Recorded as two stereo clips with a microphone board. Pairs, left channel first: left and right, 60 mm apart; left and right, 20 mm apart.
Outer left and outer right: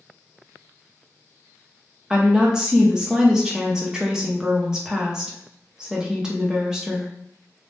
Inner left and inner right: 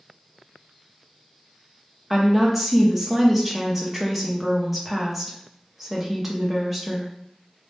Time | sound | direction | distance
2.1 | a woman speaking | 10° right (ahead or behind) | 0.7 m